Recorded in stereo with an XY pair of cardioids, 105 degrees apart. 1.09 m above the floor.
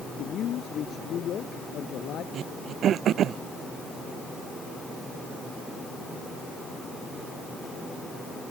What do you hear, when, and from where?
0.2 s a man speaking: 65° left
2.3 s throat clearing: 65° right